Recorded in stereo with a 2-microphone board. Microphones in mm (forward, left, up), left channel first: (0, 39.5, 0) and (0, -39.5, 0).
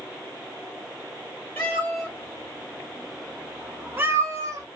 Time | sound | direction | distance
1.6 | a cat meowing | 25° left (ahead or behind) | 1.5 m